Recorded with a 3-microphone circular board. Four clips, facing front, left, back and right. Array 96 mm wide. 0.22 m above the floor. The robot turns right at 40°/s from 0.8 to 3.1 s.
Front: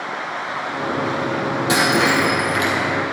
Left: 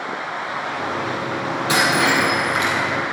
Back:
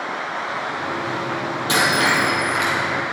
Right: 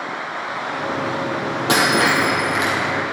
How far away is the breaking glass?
About 4 m.